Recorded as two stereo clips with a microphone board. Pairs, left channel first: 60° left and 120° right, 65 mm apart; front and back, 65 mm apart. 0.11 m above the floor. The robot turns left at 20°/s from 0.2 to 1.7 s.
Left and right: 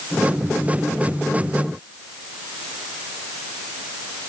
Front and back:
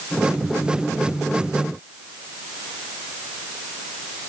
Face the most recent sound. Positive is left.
No sound to turn to.